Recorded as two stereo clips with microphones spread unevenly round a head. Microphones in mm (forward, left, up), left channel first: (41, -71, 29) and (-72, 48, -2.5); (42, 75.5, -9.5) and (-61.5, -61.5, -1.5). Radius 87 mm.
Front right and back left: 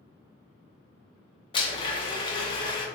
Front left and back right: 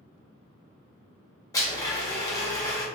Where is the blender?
10° left, 0.6 m.